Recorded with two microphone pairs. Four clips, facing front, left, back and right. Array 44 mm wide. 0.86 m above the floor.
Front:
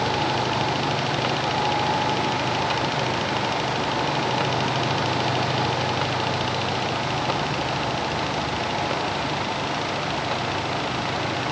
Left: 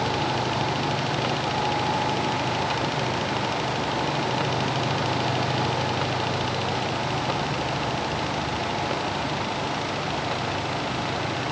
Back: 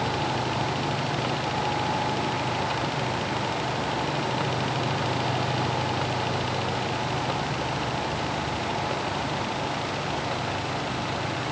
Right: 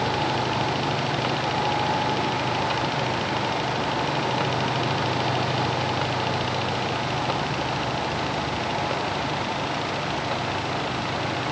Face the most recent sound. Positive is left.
No sound to turn to.